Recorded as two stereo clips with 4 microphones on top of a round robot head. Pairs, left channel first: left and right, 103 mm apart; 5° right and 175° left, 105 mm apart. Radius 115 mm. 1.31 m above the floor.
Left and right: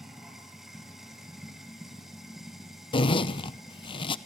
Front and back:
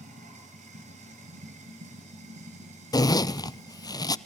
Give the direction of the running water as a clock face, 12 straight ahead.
6 o'clock.